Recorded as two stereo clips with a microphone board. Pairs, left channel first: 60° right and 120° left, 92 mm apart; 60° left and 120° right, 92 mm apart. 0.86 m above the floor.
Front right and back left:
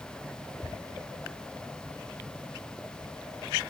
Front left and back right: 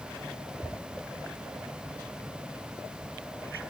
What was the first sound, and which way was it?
Only background noise.